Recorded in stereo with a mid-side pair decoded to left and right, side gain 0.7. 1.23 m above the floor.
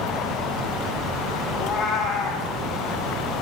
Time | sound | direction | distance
1.5 | a cat meowing | 35° left | 7 m